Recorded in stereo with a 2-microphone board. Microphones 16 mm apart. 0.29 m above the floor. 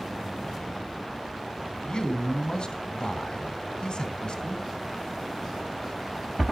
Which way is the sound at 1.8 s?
55° left (ahead or behind).